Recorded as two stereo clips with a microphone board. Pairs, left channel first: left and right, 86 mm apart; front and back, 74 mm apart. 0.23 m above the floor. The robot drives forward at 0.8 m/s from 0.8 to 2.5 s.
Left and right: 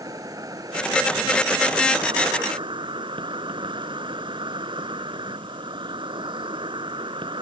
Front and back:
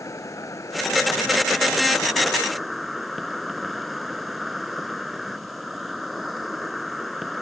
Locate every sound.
0.0 s an insect: 45° right; by 7.4 s 90° right